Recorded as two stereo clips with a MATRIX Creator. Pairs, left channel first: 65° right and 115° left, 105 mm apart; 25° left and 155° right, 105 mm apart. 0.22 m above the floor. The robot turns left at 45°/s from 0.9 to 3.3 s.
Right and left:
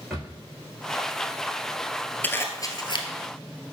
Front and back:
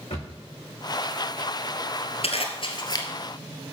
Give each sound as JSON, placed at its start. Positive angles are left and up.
{"t": 0.1, "sound": "a drawer", "azimuth_deg": 25, "distance_m": 5.5}
{"t": 2.2, "sound": "a zipper", "azimuth_deg": 5, "distance_m": 1.3}